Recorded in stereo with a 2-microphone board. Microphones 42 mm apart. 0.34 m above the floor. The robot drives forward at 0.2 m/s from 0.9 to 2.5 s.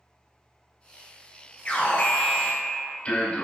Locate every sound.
1.6 s an alarm: 35° left (ahead or behind), 2.5 m